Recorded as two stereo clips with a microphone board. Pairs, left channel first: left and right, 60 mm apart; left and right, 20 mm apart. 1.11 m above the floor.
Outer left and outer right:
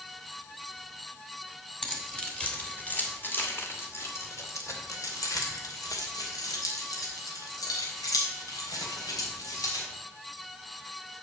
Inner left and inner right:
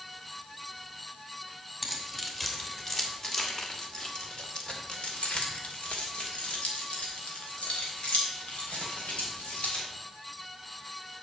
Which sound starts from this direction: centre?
Keys jangling, at 1.8 s.